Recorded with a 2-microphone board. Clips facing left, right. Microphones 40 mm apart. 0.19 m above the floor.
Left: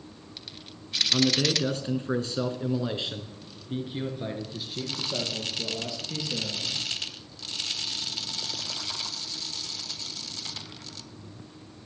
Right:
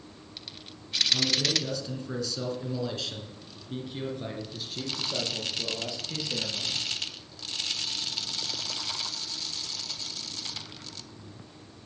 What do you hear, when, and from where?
1.1 s a man speaking: 50° left (ahead or behind), 2.5 m; by 6.8 s 5° right (ahead or behind), 5 m